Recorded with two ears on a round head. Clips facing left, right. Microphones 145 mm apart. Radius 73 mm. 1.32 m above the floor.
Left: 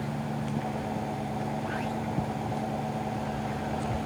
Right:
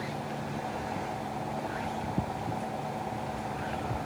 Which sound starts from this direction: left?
An engine running, at 0.0 s.